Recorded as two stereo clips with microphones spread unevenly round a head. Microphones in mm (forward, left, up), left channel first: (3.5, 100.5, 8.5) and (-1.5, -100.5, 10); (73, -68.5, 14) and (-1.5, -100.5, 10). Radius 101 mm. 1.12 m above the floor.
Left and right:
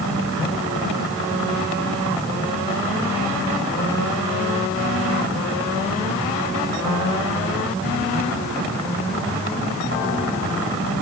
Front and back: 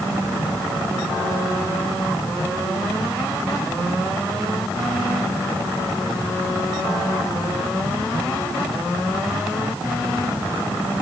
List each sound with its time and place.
Only background noise.